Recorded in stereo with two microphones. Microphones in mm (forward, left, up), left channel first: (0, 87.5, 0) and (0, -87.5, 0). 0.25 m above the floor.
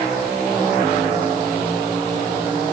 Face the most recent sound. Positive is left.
No sound to turn to.